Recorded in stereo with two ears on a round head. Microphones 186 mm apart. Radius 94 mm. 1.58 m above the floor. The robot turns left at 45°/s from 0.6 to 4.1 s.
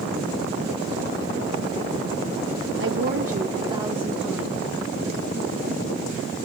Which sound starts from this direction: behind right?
A woman speaking, at 2.8 s.